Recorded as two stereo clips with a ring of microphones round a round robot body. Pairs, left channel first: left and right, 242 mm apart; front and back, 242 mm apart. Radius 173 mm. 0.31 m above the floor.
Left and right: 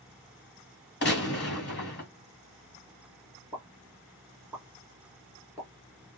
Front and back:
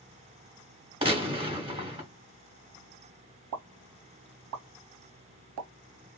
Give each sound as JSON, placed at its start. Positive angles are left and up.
{"t": 1.0, "sound": "a gunshot", "azimuth_deg": 120, "distance_m": 1.5}
{"t": 3.5, "sound": "a pop", "azimuth_deg": -175, "distance_m": 0.5}